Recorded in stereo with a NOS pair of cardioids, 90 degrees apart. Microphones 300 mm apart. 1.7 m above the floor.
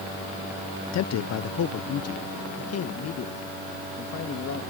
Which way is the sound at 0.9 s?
65° left.